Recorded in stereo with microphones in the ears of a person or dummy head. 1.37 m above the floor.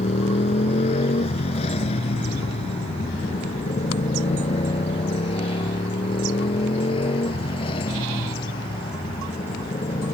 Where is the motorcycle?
35° left (ahead or behind); by 10.2 s 25° left (ahead or behind).